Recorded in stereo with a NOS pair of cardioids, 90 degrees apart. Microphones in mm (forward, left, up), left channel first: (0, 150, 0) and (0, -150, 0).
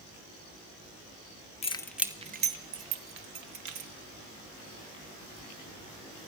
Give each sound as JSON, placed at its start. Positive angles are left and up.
{"t": 1.6, "sound": "keys jangling", "azimuth_deg": 20, "distance_m": 0.6}